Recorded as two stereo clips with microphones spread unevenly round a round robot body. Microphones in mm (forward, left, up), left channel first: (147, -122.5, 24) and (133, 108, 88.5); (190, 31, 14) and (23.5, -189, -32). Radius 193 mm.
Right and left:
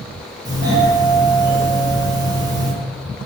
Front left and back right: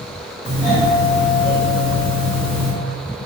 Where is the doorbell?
5° left, 1.6 m.